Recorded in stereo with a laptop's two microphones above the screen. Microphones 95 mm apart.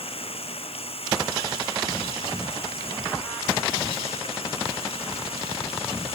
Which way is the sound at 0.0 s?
80° left.